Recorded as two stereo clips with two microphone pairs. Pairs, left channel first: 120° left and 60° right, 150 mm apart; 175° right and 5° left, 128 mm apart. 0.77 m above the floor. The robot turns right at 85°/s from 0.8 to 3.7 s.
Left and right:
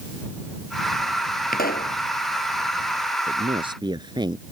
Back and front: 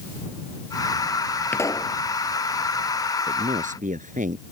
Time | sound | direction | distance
1.5 | a pop | 105° left | ?
3.3 | a man speaking | 35° right | ?